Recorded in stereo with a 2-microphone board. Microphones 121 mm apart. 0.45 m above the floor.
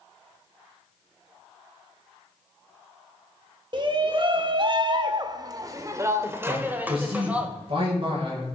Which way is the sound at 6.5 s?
50° right (ahead or behind).